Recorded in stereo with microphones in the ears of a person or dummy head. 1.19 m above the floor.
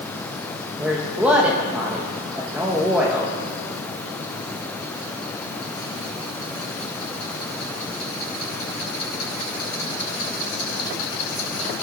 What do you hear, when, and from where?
0.8 s a woman speaking: centre (ahead or behind), 1.1 m